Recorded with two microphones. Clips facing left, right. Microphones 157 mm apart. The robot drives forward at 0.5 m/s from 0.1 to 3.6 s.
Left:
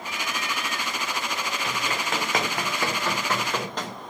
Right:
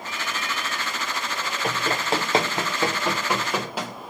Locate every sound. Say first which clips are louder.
1.6 s running footsteps: right 7 dB; 45° right (ahead or behind), 3 m; by 3.9 s 5° right (ahead or behind), 6 m